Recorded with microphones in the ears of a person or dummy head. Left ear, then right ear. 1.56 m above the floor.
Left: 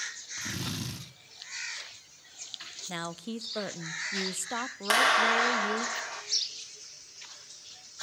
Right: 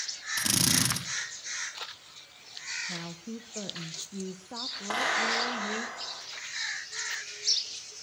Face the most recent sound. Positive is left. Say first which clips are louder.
# left 5 dB
turn(degrees=70)  # may be behind; listen again after turning